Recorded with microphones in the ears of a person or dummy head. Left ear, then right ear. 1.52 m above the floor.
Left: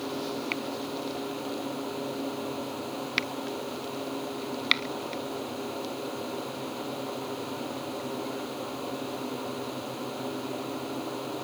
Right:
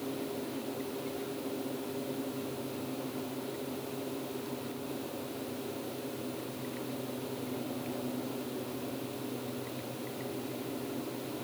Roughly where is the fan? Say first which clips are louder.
Left 5 dB; left.